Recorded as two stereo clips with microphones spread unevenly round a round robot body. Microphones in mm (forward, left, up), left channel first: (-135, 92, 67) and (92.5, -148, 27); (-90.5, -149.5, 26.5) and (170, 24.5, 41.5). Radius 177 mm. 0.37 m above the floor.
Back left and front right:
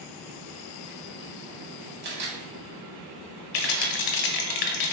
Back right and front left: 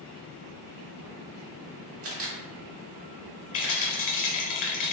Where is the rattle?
155° left, 0.6 m.